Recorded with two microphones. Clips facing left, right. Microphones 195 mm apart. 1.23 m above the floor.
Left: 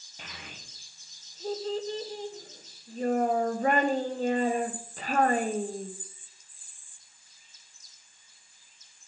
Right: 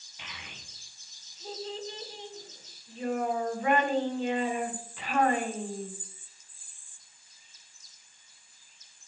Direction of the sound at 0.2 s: 40° left (ahead or behind).